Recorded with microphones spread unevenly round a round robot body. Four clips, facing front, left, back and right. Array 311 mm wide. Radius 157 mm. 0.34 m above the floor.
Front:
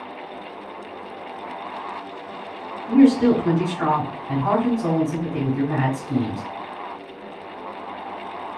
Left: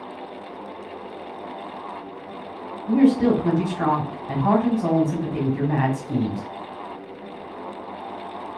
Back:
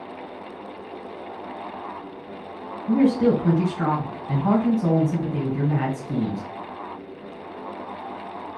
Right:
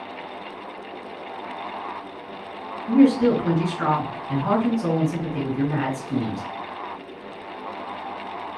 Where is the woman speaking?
95° left, 1.6 m.